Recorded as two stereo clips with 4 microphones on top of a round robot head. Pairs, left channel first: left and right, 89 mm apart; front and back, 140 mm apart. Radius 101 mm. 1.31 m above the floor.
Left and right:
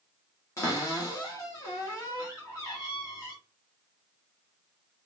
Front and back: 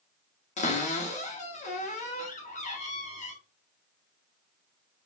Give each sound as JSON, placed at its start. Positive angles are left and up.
{"t": 0.6, "sound": "a cupboard door", "azimuth_deg": 30, "distance_m": 1.2}